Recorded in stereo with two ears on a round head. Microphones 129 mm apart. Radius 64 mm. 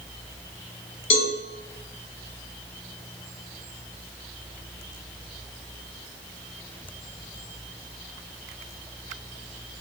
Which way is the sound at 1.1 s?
40° left (ahead or behind).